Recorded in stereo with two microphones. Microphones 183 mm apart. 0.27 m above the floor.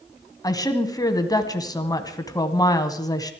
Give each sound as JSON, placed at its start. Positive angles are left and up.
{"t": 0.4, "sound": "a woman speaking", "side_deg": 20, "distance_m": 1.8}